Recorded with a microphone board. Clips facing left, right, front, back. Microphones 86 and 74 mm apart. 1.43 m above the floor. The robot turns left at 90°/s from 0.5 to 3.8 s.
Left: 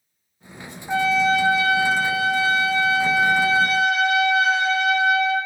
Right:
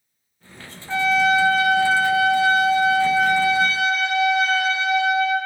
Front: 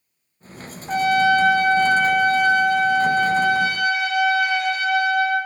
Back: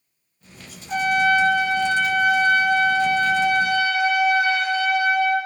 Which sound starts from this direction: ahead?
A trumpet, at 0.9 s.